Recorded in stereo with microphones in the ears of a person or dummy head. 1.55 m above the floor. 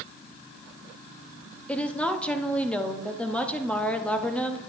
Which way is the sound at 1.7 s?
10° left (ahead or behind).